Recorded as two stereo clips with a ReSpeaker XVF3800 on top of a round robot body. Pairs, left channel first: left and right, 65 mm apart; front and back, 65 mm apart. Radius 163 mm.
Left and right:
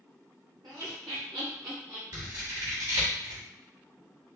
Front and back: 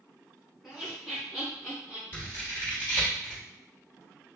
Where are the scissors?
60° right, 2.5 m.